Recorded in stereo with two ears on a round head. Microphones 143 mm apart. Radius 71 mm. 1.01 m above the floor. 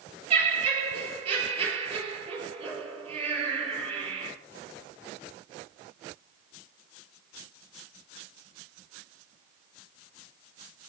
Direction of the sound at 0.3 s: 35° right (ahead or behind).